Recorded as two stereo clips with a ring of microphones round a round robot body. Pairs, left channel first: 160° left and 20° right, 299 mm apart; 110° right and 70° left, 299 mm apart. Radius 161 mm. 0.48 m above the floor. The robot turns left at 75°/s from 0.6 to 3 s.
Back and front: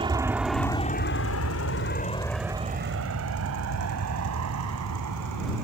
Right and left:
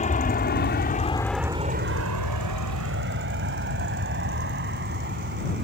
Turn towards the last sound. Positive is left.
turn(degrees=10)